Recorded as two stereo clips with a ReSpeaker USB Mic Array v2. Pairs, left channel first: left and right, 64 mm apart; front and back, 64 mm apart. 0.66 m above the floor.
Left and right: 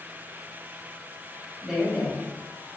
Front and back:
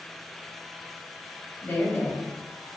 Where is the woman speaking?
15° right, 0.9 m; by 2.7 s 70° left, 1.7 m.